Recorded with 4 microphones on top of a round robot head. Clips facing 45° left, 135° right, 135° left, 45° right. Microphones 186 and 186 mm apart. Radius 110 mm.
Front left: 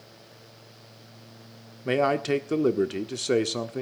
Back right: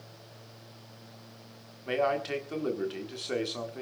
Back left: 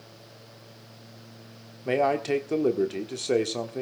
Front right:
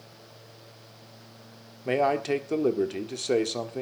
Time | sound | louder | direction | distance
1.9 | a man speaking | front left 5 dB, back left 1 dB | 50° left | 1.4 m